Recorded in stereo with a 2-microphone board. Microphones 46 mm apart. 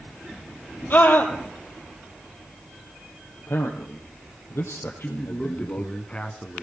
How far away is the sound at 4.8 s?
About 1.7 m.